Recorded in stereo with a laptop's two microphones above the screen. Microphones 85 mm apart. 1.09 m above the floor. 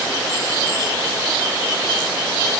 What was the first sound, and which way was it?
Only background noise.